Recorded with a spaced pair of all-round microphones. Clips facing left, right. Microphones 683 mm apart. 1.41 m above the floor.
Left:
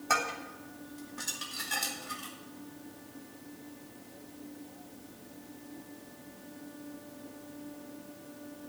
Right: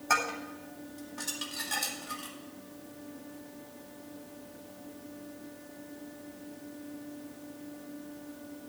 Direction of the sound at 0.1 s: 5° left (ahead or behind).